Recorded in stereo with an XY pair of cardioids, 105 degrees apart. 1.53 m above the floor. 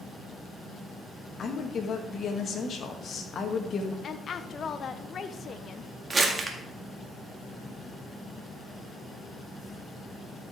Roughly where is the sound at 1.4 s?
Ahead left.